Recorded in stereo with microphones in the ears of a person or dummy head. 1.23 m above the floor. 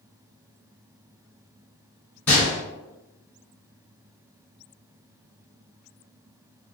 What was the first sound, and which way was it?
A gunshot, 10° left (ahead or behind).